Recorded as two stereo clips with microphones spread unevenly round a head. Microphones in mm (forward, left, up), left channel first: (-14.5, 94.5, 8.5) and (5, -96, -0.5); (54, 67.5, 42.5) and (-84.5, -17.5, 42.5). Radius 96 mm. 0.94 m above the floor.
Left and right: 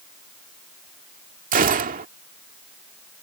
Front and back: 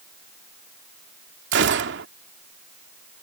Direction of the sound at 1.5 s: 135° right.